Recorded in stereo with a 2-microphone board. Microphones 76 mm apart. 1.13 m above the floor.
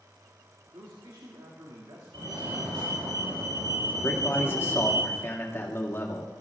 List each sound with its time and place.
0.7 s a man speaking: 85° right, 2 m
2.1 s a fire alarm: 75° right (ahead or behind), 8.5 m
4.0 s a man speaking: 35° left (ahead or behind), 2 m